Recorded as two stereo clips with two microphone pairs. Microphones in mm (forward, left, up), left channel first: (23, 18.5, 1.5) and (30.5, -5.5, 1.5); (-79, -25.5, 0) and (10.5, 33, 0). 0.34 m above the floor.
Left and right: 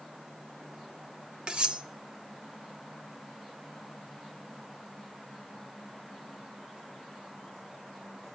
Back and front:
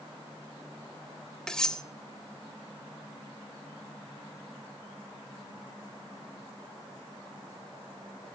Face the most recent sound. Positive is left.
turn(degrees=-70)